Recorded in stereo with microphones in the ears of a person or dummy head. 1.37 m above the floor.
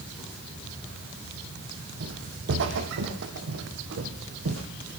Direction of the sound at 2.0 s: 60° right (ahead or behind).